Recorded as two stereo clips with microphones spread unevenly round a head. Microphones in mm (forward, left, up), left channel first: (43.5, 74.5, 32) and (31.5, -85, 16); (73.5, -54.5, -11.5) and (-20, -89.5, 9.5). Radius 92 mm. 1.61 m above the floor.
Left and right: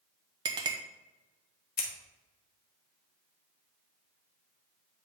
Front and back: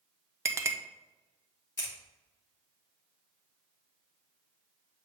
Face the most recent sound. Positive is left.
turn(degrees=70)